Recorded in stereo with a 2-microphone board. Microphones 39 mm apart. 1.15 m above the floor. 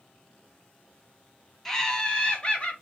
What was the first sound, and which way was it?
Laughter, 5° left (ahead or behind).